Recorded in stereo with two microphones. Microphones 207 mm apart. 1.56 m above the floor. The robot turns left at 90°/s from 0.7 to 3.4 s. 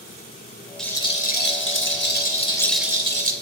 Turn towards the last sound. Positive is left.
turn(degrees=-55)